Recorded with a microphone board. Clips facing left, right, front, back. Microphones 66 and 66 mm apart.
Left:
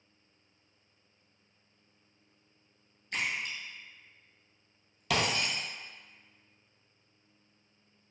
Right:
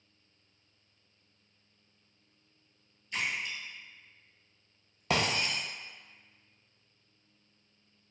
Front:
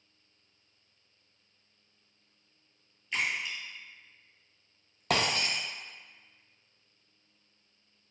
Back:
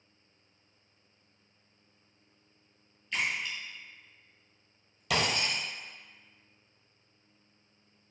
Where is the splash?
80° left, 0.8 m.